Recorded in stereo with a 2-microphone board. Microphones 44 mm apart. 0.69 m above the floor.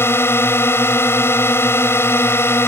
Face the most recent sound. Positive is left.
turn(degrees=70)  # may be behind; listen again after turning